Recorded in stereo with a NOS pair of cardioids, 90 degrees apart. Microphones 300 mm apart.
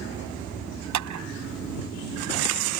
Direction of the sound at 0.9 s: 70° right.